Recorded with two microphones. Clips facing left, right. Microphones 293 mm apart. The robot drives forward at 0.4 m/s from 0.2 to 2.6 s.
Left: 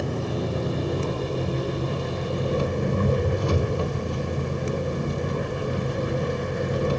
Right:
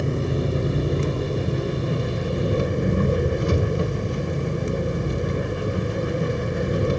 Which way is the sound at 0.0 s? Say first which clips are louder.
Right 3 dB; 25° right (ahead or behind).